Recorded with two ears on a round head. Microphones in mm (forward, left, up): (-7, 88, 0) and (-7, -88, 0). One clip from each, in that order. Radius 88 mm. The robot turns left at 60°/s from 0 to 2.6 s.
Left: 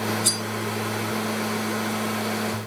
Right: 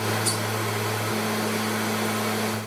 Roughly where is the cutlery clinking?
Centre.